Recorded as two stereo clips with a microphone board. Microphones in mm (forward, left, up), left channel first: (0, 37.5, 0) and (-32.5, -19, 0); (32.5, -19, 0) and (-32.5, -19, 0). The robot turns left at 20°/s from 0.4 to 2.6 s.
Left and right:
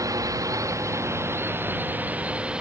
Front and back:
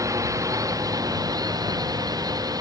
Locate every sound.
0.0 s a drone: 150° right; by 2.6 s 165° left